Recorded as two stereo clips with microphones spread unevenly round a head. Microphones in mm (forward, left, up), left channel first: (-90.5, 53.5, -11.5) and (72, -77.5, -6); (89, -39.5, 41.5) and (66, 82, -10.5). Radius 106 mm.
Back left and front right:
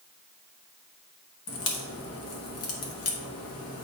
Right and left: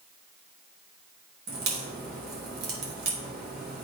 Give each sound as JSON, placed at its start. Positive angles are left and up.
{"t": 1.5, "sound": "a crack", "azimuth_deg": 115, "distance_m": 1.3}